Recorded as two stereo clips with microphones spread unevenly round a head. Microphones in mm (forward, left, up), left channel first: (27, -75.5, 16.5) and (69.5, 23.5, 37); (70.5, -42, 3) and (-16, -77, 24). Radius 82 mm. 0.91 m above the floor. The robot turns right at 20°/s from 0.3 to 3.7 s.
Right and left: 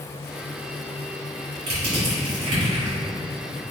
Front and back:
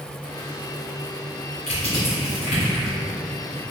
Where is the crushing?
50° left, 1.8 m; by 3.0 s 75° left, 1.8 m.